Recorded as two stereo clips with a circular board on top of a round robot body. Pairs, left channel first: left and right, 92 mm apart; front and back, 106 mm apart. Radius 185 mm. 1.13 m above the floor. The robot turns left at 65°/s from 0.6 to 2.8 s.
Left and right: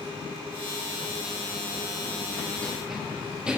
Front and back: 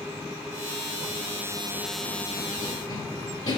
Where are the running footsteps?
80° left, 3 m; by 3.6 s 15° right, 3.5 m.